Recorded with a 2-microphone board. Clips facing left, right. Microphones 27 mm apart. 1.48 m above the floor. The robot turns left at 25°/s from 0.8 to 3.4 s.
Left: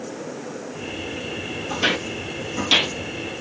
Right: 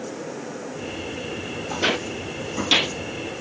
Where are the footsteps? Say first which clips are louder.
Left 1 dB; 10° left (ahead or behind), 2 m.